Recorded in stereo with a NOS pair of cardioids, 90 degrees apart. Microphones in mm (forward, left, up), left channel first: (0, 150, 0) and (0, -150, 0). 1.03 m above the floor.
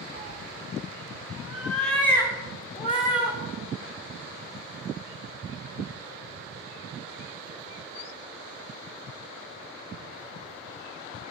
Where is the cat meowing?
55° right, 0.9 m; by 3.4 s 15° left, 2.5 m.